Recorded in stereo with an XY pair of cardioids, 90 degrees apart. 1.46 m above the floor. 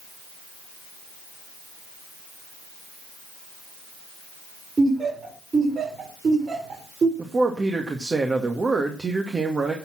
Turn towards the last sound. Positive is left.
turn(degrees=-35)